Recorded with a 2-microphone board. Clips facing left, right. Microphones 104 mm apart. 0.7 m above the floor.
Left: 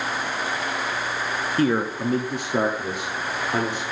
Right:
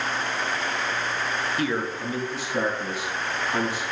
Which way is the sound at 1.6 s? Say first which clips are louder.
Left 10 dB; 40° left (ahead or behind).